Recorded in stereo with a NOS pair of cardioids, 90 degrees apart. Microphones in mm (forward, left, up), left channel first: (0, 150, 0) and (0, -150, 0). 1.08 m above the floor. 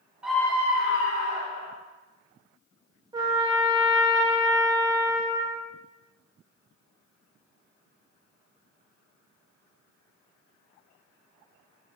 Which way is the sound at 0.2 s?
5° right.